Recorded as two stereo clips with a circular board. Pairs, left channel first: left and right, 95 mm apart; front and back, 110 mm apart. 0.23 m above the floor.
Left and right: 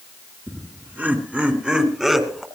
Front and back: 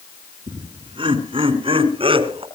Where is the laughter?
155° right, 3 m; by 2.5 s straight behind, 2.5 m.